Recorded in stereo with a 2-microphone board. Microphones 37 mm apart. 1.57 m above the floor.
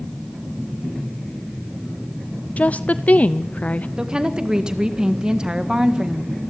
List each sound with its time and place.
2.6 s a woman speaking: 45° left (ahead or behind), 0.5 m
4.0 s a woman speaking: 20° right (ahead or behind), 1.6 m